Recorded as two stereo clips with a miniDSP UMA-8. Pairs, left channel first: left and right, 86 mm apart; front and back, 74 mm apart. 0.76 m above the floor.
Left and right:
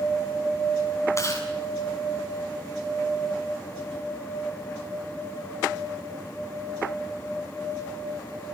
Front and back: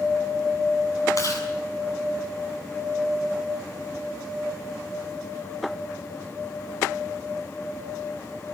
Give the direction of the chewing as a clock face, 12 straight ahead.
11 o'clock.